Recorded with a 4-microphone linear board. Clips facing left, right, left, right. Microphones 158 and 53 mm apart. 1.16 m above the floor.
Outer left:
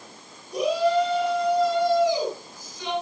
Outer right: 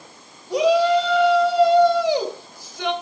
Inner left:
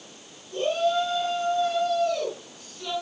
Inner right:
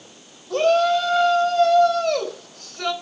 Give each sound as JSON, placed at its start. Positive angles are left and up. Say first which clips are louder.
{"t": 0.5, "sound": "a shout", "louder": "outer right 5 dB, inner right 7 dB", "side_deg": -75, "distance_m": 6.5}